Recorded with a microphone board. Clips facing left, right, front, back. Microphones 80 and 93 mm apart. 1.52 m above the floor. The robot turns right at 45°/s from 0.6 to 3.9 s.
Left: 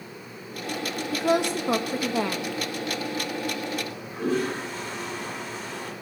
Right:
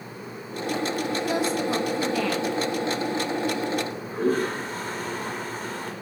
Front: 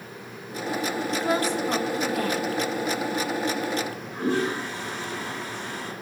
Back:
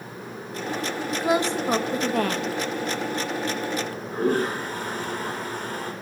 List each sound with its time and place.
1.1 s a woman speaking: 100° left, 1.6 m; by 2.5 s 165° left, 1.6 m
3.8 s a toilet flushing: 140° right, 5 m; by 5.9 s 135° right, 5 m